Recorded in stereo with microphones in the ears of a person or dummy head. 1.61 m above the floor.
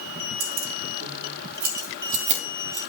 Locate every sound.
0.4 s keys jangling: 75° right (ahead or behind), 1.8 m; by 2.8 s 25° right (ahead or behind), 1.6 m